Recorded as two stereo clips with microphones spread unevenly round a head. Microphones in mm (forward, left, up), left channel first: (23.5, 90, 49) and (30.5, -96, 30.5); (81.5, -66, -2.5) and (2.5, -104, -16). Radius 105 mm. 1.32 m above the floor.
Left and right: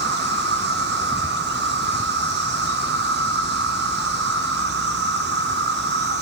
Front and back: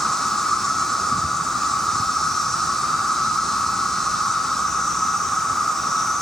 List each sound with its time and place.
0.0 s an insect: 60° right, 1.2 m